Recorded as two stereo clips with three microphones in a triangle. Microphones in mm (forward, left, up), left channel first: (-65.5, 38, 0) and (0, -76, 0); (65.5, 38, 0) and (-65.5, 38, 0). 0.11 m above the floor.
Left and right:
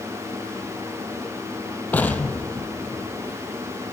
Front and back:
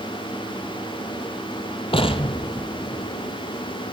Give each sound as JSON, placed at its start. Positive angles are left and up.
{"t": 1.9, "sound": "an explosion", "azimuth_deg": 45, "distance_m": 0.9}